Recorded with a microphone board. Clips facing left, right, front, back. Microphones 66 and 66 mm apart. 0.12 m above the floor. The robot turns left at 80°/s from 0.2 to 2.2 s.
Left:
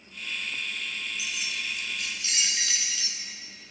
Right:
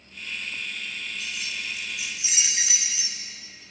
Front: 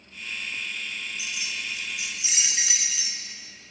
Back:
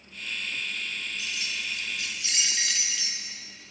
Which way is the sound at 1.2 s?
30° left.